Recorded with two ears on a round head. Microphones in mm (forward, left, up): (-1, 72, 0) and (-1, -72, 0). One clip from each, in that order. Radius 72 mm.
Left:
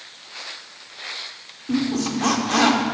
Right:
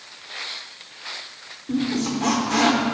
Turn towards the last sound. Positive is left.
turn(degrees=20)  # may be behind; listen again after turning